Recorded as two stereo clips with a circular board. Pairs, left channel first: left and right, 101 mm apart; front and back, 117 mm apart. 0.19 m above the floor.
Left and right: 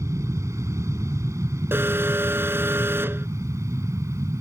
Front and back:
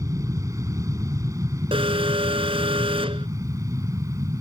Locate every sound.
0.0 s an aircraft: 135° right
1.7 s an alarm: 155° right